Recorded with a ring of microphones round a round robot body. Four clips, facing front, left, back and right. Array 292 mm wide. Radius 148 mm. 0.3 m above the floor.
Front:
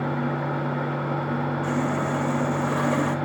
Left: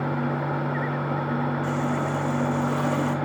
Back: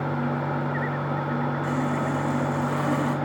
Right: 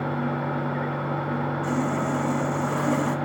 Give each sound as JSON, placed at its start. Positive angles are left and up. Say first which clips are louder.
{"t": 1.6, "sound": "sawing", "louder": "right 1 dB, front 1 dB", "azimuth_deg": -15, "distance_m": 1.5}